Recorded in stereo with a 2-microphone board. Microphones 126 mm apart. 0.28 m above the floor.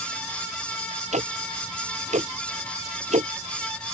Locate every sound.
1.1 s ticking: 65° right (ahead or behind)